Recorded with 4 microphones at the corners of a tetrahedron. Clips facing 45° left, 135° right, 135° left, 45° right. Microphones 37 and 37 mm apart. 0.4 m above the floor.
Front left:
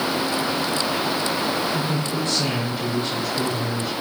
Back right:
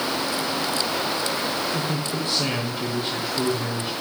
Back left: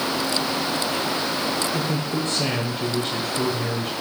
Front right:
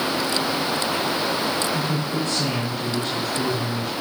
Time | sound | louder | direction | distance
1.7 | a man speaking | front left 2 dB, even | 155° left | 1.4 m